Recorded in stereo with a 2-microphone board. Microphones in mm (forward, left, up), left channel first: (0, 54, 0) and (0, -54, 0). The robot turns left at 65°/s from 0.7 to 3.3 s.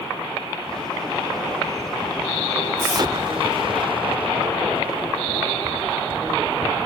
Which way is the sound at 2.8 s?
30° right (ahead or behind).